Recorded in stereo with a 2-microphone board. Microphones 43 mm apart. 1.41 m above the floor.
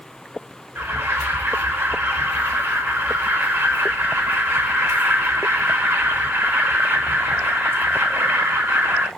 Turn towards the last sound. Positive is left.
turn(degrees=-70)  # may be behind; listen again after turning